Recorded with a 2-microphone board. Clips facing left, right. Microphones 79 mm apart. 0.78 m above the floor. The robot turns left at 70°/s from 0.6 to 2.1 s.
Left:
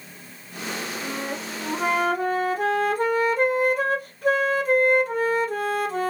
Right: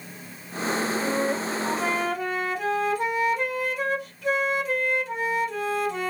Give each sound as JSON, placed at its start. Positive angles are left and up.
{"t": 1.0, "sound": "a flute", "azimuth_deg": -150, "distance_m": 0.9}